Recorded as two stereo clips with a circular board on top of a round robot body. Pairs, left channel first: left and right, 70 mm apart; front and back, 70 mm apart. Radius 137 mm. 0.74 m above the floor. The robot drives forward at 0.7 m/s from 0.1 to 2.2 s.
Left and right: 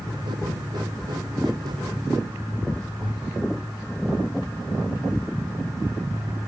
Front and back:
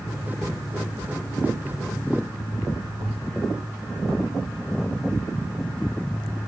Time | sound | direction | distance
3.0 | a thud | 150° left | 6 m